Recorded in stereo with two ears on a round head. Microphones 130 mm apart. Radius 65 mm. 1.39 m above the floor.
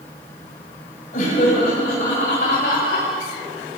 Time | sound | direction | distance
1.1 | laughter | 55° left (ahead or behind) | 8 m